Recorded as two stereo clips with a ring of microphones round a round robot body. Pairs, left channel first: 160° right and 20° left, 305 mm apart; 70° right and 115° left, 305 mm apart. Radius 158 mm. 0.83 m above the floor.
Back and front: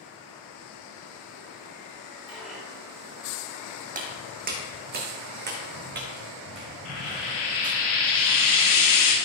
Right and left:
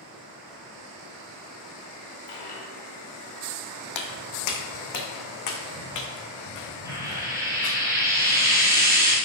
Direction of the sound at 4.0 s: 40° right.